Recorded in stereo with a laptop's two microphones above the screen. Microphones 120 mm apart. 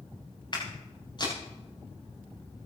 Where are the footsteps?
40° left (ahead or behind), 7.5 m.